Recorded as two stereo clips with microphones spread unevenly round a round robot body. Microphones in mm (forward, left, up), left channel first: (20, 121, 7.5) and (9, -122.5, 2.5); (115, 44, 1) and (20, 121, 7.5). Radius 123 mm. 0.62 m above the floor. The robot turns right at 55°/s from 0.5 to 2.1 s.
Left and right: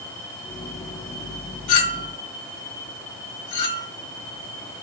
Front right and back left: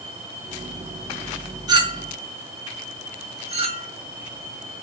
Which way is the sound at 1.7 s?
80° left.